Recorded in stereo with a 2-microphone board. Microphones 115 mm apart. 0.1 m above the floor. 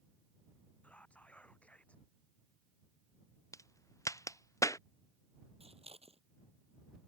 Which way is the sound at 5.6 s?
60° right (ahead or behind).